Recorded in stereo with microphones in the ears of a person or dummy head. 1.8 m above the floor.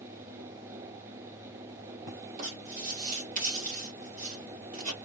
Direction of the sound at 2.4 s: 40° right (ahead or behind).